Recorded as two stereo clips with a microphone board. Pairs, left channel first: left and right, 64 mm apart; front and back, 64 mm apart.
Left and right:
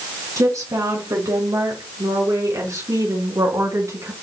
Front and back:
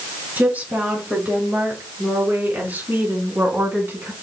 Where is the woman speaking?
115° right, 5 m; by 4.1 s 120° right, 3 m.